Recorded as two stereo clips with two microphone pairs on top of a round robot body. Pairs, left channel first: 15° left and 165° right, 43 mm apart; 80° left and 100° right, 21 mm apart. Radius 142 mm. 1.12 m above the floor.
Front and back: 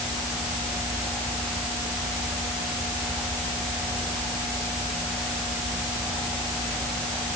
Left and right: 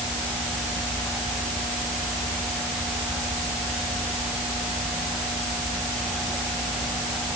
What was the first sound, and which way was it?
Only background noise.